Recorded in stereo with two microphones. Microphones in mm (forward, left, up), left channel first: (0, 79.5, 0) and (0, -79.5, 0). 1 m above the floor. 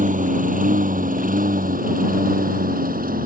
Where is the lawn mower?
55° right (ahead or behind); by 3.3 s 65° right (ahead or behind).